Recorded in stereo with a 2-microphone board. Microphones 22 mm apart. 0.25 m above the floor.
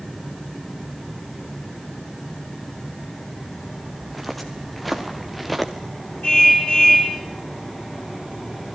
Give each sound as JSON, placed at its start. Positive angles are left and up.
{"t": 4.0, "sound": "footsteps", "side_deg": -5, "distance_m": 5.0}
{"t": 6.2, "sound": "a car horn", "side_deg": 60, "distance_m": 8.5}